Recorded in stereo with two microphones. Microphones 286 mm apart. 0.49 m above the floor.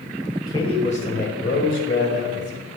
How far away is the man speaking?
About 2 m.